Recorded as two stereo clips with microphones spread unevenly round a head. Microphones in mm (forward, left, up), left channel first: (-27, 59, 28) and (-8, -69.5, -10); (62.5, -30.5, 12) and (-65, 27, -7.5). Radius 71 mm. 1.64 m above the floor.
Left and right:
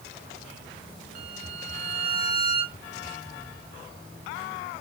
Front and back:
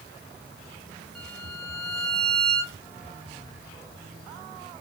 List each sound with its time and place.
1.1 s a violin: 110° right, 2.5 m